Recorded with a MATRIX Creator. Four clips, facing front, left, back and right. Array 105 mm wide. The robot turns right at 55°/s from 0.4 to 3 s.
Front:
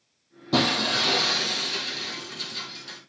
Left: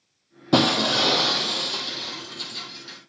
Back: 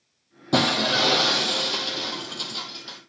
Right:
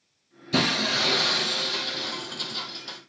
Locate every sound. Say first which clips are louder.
0.5 s breaking glass: left 6 dB, back 2 dB; 100° left, 1.4 m; by 3.0 s 125° right, 1.4 m